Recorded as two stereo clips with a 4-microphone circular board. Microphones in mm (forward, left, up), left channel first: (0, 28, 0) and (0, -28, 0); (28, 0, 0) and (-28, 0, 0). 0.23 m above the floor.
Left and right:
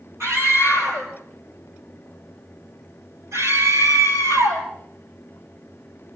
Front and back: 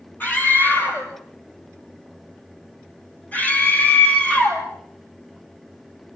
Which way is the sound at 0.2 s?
55° right.